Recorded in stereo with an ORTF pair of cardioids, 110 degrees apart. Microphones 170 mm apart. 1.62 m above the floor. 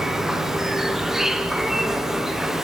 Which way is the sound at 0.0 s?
Straight ahead.